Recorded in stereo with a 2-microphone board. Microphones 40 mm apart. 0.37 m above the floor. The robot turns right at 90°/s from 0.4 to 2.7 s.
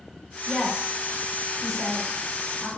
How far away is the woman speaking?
About 0.8 m.